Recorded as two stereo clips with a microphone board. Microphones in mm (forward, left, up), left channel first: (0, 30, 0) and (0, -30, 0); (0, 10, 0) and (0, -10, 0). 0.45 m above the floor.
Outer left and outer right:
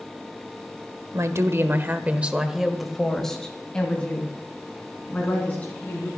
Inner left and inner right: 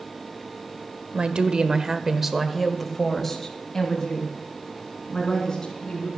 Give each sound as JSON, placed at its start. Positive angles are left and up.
{"t": 1.1, "sound": "a woman speaking", "side_deg": -60, "distance_m": 1.3}